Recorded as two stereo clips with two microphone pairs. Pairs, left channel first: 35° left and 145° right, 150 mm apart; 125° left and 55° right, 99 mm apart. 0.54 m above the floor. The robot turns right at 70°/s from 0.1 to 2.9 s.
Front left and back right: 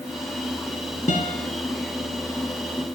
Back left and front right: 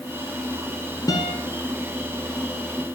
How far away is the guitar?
About 2 m.